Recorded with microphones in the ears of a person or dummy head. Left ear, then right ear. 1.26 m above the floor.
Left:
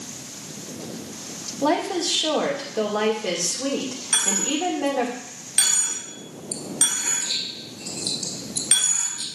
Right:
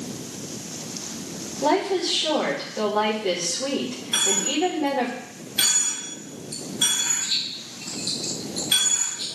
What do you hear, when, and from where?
1.6 s a woman speaking: 60° left (ahead or behind), 2 m
4.1 s a dropped coin: 65° left (ahead or behind), 1.8 m